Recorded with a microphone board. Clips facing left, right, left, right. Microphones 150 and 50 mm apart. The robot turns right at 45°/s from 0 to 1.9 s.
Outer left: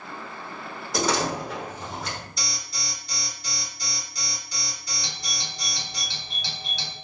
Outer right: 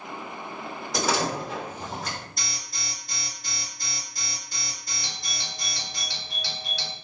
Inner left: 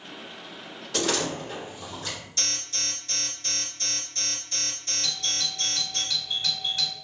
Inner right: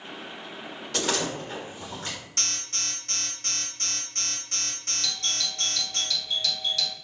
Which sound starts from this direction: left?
A doorbell, at 5.0 s.